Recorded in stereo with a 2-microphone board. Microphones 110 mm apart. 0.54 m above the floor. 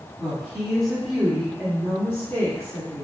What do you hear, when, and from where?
0.2 s a woman speaking: 15° right (ahead or behind), 1.5 m; by 3.0 s 35° left (ahead or behind), 1.4 m